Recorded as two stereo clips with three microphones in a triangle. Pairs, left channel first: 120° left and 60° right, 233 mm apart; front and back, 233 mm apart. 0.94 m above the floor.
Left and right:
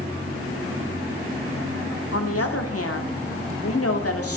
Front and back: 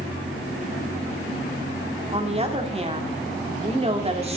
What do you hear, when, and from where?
2.1 s a woman speaking: 120° left, 2 m